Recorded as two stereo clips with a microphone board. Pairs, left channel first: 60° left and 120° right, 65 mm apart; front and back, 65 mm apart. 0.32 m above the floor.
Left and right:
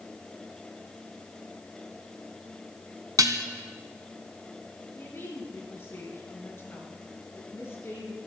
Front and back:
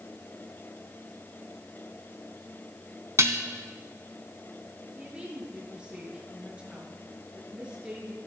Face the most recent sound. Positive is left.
turn(degrees=110)